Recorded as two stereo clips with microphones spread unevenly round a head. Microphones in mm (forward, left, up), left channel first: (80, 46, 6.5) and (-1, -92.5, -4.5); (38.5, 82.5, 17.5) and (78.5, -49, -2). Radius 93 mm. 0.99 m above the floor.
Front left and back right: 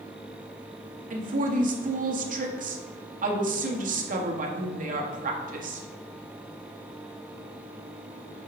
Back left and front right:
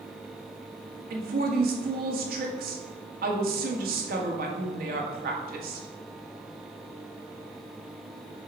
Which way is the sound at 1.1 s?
85° right.